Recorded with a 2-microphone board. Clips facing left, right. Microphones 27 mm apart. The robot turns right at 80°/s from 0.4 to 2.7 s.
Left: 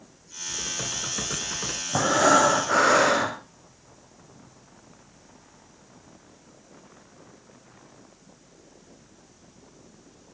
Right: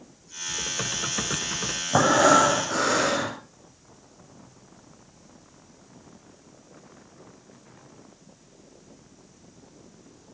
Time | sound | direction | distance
0.5 | typing on a keyboard | 20° right (ahead or behind) | 1.5 m
1.9 | breathing | 30° right | 3 m